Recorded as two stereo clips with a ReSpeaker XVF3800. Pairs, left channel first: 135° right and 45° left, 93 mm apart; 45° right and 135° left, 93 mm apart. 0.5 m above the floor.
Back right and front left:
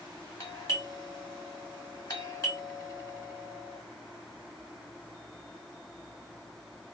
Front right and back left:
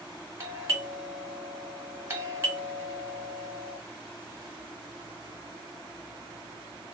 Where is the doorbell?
170° right, 2 m.